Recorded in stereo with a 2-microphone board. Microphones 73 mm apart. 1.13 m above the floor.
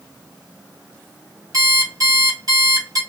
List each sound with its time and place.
1.5 s an alarm clock: 50° right (ahead or behind), 2.5 m